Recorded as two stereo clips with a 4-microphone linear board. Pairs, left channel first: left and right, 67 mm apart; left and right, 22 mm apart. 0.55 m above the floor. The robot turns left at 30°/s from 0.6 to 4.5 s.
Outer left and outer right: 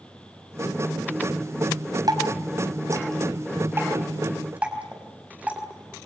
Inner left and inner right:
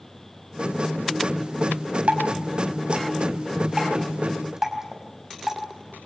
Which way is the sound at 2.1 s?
75° right (ahead or behind).